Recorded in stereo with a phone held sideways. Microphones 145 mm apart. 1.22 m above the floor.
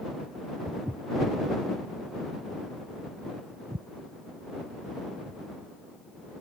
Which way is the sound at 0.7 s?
15° right (ahead or behind).